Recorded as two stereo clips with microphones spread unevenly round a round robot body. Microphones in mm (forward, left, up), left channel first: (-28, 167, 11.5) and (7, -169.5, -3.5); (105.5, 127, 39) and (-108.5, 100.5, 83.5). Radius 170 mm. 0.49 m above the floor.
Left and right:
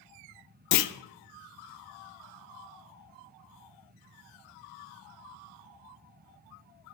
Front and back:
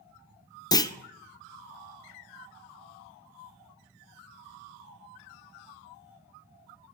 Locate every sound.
0.7 s a clunk: 70° left, 0.5 m